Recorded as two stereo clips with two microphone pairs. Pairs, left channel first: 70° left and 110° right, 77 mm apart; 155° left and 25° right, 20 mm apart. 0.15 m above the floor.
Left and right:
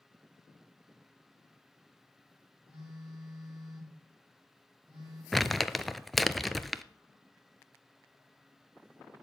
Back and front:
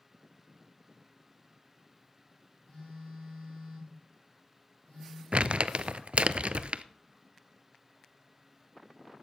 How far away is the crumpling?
About 0.5 m.